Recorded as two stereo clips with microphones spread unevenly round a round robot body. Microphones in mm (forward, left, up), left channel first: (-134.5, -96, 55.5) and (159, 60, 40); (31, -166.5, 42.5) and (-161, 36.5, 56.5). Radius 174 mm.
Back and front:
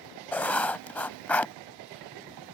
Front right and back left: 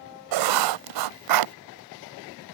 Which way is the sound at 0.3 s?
120° left.